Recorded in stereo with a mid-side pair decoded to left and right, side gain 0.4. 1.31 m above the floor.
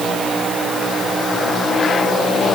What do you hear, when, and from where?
Only background noise.